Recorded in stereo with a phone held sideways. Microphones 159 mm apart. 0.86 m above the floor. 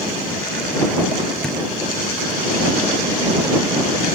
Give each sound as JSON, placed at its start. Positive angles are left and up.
{"t": 1.4, "sound": "a thud", "side_deg": 5}